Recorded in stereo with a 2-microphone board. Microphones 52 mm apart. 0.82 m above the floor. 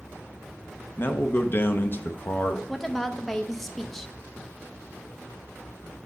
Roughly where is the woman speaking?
Centre.